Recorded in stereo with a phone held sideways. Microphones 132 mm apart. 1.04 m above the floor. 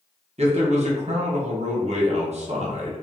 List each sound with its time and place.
0.4 s a man speaking: 55° right (ahead or behind), 0.9 m